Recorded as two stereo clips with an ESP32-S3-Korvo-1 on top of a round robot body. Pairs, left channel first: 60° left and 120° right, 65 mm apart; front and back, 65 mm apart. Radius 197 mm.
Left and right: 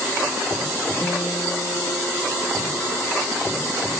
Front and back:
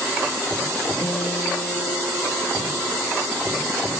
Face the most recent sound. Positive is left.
turn(degrees=10)